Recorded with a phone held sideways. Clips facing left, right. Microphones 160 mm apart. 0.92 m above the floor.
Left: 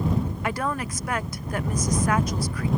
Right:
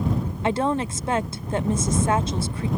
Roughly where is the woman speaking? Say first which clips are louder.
Right 5 dB; right.